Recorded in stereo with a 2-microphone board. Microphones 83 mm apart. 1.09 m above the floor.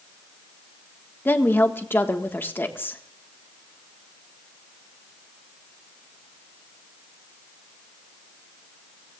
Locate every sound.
1.2 s a woman speaking: 25° left (ahead or behind), 1.5 m